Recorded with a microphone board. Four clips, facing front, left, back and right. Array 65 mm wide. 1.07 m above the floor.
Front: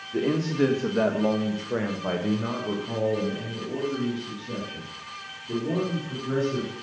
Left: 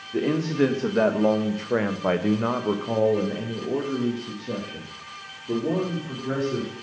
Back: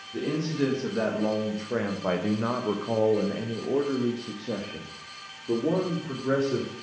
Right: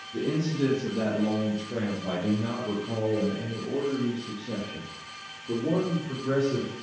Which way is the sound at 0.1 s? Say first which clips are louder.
Left 5 dB, front 4 dB; 55° left.